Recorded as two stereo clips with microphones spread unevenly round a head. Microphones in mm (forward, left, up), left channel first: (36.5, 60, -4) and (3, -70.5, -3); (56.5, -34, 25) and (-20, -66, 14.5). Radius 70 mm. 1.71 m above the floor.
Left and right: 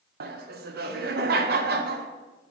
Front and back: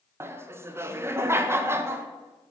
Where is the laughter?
95° right, 0.6 m.